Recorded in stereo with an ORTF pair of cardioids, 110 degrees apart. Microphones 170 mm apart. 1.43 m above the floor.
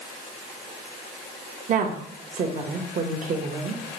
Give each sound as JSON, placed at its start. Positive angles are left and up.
{"t": 1.7, "sound": "a woman speaking", "azimuth_deg": -50, "distance_m": 1.0}